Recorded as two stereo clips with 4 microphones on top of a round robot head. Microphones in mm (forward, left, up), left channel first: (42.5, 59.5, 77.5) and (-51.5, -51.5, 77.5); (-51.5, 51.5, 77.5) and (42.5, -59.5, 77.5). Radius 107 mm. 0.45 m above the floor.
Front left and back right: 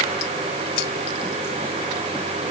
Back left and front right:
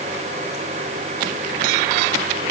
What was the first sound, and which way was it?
Only background noise.